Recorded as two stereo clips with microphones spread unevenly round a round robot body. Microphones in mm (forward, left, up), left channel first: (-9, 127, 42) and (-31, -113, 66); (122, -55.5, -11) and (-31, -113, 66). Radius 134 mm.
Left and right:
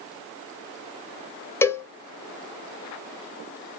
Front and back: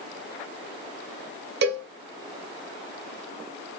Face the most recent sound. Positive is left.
turn(degrees=160)